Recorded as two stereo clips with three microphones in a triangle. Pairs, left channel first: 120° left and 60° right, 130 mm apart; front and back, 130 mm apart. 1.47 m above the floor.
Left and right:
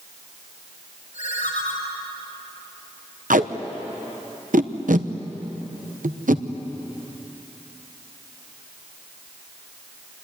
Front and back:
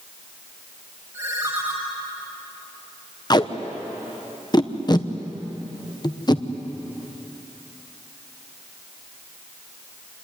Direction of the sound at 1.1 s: 120° left.